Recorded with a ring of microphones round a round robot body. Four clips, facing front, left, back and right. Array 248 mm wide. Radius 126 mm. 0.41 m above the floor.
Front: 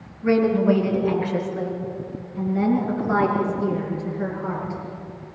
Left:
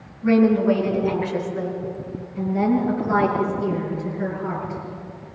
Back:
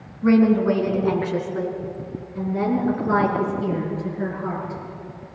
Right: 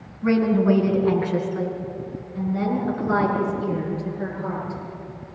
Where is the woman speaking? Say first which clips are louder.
Left 2 dB, back 2 dB; 145° right, 5 m; by 4.8 s 165° right, 9.5 m.